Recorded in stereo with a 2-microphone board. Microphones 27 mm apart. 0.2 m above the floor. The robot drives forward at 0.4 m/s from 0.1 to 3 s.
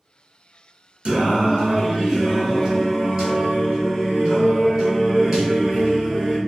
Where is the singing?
45° right (ahead or behind), 0.6 m; by 6.4 s 20° right (ahead or behind), 1.3 m.